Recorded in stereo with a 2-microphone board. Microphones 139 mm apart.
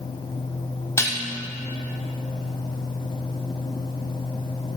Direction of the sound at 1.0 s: 20° left (ahead or behind).